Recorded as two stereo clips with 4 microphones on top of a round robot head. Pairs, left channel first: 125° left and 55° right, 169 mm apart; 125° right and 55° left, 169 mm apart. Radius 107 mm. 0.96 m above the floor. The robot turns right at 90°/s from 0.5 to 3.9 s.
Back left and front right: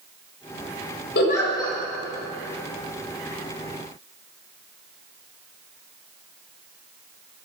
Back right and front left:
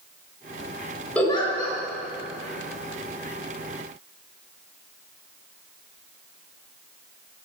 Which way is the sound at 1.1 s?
150° left.